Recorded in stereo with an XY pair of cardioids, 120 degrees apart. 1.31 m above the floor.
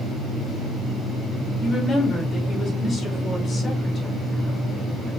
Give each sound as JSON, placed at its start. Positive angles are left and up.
{"t": 1.6, "sound": "a woman speaking", "azimuth_deg": 35, "distance_m": 2.5}